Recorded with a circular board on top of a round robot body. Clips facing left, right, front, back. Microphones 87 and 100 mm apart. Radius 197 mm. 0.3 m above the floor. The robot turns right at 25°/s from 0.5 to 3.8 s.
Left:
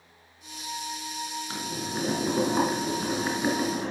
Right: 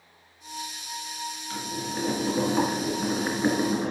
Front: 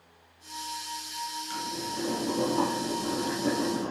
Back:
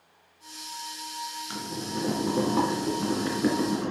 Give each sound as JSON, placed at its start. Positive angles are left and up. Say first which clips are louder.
{"t": 1.5, "sound": "boiling", "louder": "right 3 dB, back 1 dB", "azimuth_deg": 140, "distance_m": 3.5}